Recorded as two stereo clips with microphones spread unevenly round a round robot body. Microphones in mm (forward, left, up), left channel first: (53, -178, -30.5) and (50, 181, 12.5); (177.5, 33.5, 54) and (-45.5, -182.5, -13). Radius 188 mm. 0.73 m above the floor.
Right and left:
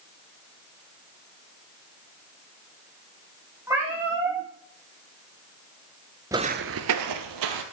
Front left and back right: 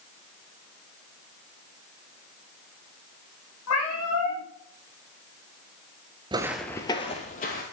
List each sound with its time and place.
3.7 s a cat meowing: 10° left, 6.5 m
6.3 s footsteps: 140° left, 0.7 m; by 7.6 s 105° left, 1.7 m